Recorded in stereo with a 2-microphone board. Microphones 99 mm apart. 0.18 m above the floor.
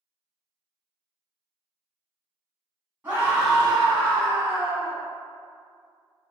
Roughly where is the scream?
Right.